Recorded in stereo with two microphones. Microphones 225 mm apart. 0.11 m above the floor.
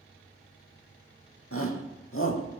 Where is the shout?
75° left (ahead or behind), 5 m; by 2.6 s 60° left (ahead or behind), 4.5 m.